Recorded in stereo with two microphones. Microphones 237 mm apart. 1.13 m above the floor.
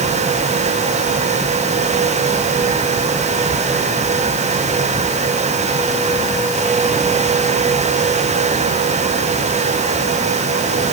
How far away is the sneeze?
No sneeze in this recording.